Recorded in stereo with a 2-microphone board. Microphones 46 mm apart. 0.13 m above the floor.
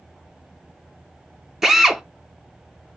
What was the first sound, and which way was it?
A drill, 5° right (ahead or behind).